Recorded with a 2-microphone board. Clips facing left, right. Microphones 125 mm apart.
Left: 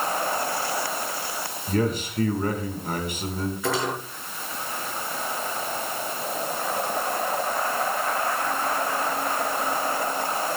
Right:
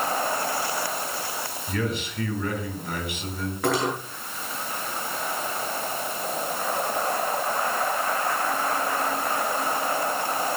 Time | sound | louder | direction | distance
1.7 | a man speaking | left 5 dB | 40° left (ahead or behind) | 4 m
3.6 | cutlery clinking | right 3 dB | 60° right (ahead or behind) | 8.5 m